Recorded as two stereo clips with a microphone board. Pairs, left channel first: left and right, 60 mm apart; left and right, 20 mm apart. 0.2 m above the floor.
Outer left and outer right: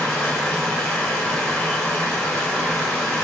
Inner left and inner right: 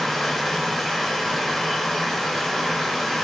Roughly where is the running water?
Centre.